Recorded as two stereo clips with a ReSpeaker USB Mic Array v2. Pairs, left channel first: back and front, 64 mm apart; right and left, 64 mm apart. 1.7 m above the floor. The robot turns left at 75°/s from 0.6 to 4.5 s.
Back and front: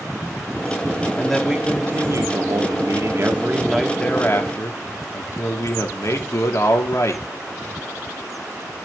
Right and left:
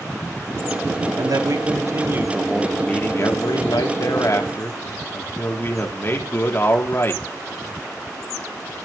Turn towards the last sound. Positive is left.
turn(degrees=-140)